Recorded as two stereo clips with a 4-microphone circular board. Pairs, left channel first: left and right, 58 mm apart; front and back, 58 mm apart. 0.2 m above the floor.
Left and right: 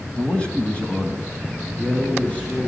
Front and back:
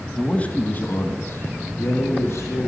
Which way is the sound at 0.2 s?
45° left.